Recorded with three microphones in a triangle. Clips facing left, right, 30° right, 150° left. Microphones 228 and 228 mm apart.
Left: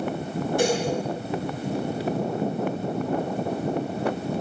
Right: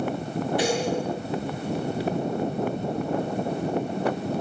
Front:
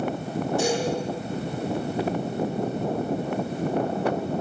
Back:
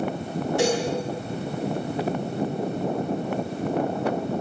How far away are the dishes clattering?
About 8.5 m.